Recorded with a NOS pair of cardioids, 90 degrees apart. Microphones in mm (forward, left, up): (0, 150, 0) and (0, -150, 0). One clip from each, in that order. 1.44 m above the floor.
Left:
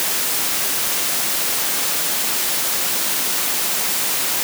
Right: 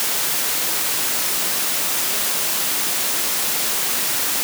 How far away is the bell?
I don't hear a bell.